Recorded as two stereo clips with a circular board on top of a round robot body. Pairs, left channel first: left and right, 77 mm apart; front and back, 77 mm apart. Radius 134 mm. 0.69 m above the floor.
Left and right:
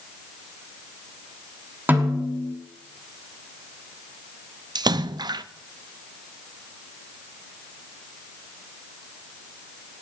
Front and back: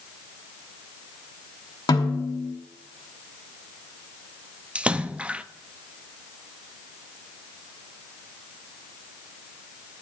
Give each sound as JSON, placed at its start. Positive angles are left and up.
{"t": 1.9, "sound": "a snare drum", "azimuth_deg": -25, "distance_m": 3.0}
{"t": 4.8, "sound": "a splash", "azimuth_deg": -105, "distance_m": 0.6}